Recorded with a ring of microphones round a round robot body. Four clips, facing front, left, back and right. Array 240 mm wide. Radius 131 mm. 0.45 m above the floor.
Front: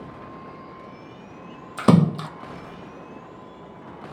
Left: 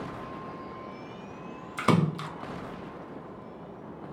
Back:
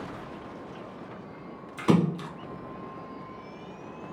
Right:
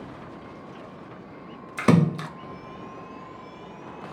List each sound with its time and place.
1.8 s a splash: 25° right, 0.6 m